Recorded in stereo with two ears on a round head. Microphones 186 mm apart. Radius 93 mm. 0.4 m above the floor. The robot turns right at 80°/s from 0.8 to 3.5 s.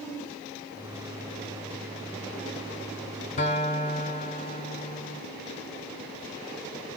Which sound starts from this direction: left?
A guitar, at 3.4 s.